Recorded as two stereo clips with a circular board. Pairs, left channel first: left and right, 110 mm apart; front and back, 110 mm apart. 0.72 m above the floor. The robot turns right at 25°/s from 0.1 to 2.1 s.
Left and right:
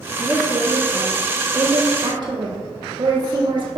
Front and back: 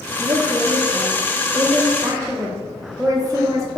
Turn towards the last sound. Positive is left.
turn(degrees=-125)